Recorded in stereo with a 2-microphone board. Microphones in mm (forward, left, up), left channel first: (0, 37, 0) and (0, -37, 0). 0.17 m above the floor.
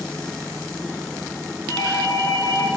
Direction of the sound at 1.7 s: 65° left (ahead or behind).